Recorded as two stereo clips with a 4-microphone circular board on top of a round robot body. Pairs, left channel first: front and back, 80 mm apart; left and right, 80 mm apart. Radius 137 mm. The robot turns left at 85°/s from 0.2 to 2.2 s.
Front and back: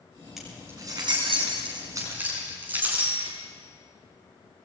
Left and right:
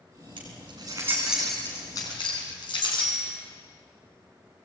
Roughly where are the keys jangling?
Right.